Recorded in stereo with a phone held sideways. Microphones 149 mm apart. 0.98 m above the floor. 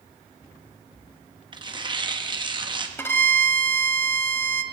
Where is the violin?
15° left (ahead or behind), 0.8 m.